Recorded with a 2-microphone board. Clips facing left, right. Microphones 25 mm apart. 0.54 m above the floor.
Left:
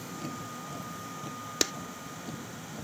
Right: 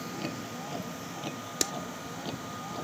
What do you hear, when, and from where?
0.0 s a vehicle: 35° right (ahead or behind); by 2.8 s 45° right (ahead or behind)
1.6 s a clap: 20° left (ahead or behind)